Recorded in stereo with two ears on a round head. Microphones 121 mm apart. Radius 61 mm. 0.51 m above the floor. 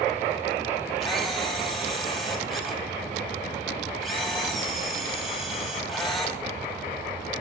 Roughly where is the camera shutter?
Centre.